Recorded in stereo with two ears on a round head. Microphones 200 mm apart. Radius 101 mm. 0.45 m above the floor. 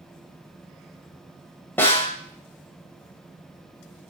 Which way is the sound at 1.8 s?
10° left (ahead or behind).